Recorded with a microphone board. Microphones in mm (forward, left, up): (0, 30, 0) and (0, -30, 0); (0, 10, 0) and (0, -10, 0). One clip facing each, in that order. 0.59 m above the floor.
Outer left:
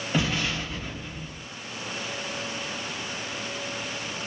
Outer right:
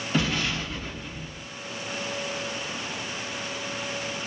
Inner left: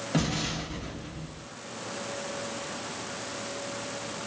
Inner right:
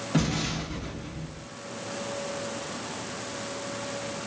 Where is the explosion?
15° left (ahead or behind), 1.6 m.